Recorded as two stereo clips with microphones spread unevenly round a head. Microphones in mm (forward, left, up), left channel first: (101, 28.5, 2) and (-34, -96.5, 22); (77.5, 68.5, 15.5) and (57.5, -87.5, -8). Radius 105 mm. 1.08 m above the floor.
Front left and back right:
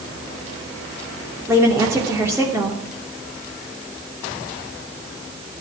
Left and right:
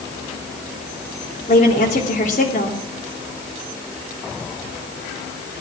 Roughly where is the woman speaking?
Behind left.